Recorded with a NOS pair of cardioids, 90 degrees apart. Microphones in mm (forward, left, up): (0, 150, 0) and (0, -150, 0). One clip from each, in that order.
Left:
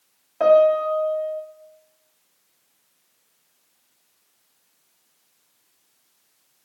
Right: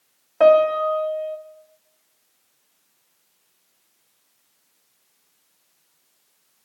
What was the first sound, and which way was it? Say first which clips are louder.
A piano: right 1 dB; 25° right.